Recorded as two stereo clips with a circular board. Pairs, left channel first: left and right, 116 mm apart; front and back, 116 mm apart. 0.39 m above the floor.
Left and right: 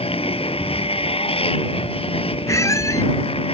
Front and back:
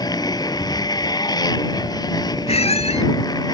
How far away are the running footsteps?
No running footsteps in this recording.